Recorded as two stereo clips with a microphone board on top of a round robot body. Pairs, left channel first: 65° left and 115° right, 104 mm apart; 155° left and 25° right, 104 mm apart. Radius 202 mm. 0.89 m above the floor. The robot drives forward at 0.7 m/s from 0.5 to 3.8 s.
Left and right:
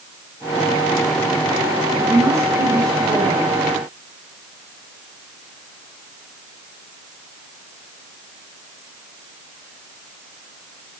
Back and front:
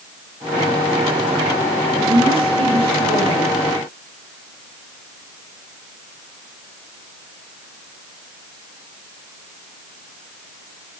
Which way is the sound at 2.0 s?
45° right.